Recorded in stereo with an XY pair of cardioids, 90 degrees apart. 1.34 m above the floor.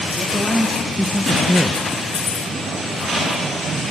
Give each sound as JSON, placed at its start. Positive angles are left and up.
{"t": 0.1, "sound": "a man speaking", "azimuth_deg": 5, "distance_m": 1.9}